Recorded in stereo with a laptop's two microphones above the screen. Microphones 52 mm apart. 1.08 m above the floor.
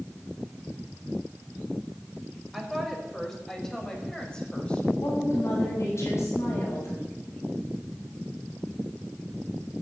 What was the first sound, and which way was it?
A woman speaking, centre (ahead or behind).